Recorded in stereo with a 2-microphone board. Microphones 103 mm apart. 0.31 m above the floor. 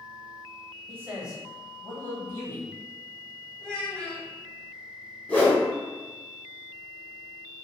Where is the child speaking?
10° left (ahead or behind), 1.3 m.